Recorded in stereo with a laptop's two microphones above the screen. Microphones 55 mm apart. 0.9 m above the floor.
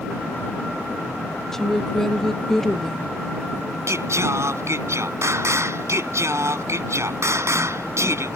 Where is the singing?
65° right (ahead or behind).